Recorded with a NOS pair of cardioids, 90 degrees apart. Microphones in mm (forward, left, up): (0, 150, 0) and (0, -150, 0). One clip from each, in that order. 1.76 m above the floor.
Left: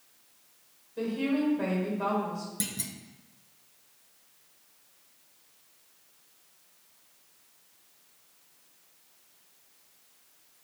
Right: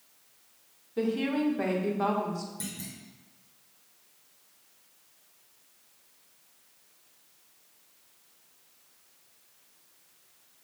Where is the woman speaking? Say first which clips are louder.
Right 1 dB; 40° right, 1.3 m.